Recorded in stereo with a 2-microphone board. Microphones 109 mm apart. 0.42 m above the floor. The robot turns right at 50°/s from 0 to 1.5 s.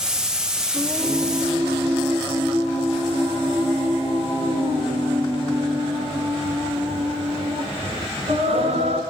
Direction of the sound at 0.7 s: 140° right.